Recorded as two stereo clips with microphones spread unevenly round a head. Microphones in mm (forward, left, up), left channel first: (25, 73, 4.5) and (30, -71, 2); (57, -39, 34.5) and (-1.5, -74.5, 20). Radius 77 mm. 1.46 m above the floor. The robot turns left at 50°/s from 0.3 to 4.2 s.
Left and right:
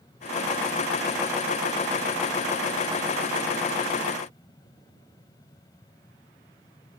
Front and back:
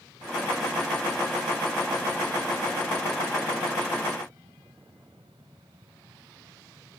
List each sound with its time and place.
Only background noise.